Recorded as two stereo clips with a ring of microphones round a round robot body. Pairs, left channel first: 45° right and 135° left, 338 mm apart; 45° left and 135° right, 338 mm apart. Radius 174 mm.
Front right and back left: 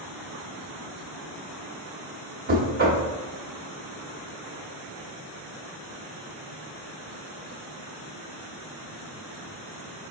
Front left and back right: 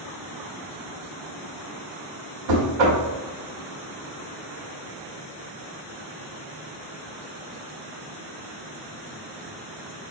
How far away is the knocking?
About 0.9 m.